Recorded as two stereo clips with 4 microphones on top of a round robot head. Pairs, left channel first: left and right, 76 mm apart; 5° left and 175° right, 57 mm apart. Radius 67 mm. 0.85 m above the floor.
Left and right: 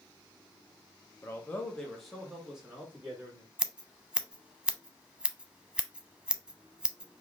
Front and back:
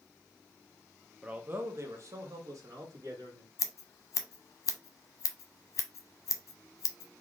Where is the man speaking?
125° left, 0.6 m; by 3.5 s 165° right, 1.8 m.